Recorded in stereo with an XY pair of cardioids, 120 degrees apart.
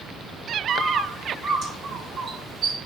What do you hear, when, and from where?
0.7 s a bird: 55° right, 2.0 m